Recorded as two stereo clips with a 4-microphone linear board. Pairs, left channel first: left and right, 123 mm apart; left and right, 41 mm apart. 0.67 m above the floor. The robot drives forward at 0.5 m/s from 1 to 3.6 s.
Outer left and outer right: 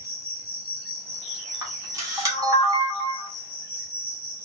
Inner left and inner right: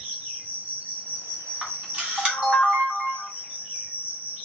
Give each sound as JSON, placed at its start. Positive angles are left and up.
{"t": 0.0, "sound": "an insect", "side_deg": -55, "distance_m": 1.0}
{"t": 1.6, "sound": "a camera shutter", "side_deg": -25, "distance_m": 1.4}